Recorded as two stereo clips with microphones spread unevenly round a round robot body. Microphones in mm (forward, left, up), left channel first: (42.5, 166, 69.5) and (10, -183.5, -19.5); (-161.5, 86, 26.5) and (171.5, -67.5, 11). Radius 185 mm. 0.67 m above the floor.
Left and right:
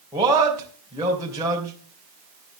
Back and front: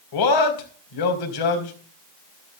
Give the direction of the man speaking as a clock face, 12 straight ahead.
6 o'clock.